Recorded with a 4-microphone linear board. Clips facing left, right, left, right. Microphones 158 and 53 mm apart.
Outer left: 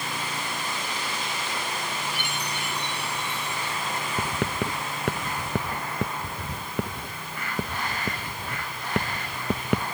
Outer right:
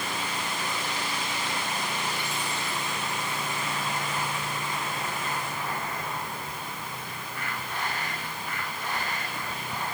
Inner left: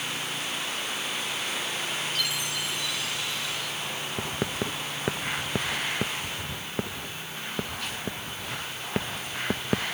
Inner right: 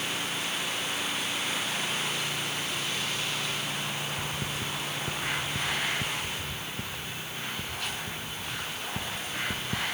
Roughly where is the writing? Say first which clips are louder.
Outer left 5 dB, inner left 3 dB; left.